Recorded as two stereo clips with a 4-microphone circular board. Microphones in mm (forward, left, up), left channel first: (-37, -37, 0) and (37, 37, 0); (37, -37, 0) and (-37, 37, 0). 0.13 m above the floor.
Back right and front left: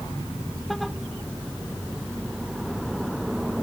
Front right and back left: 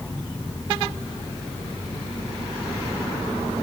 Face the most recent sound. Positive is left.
No sound to turn to.